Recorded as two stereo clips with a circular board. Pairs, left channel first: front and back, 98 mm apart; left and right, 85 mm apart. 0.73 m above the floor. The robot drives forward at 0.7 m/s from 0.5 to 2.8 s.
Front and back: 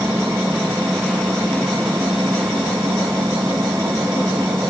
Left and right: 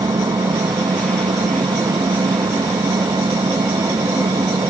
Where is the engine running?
105° right; by 4.7 s 110° right.